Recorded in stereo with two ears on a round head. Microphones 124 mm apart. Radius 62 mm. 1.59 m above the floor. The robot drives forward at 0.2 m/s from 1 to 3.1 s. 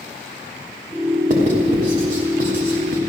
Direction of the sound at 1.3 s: 60° right (ahead or behind).